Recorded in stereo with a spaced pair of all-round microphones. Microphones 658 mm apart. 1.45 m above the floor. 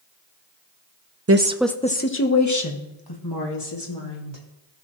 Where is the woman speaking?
25° right (ahead or behind), 0.5 m; by 4.4 s 40° left (ahead or behind), 2.5 m.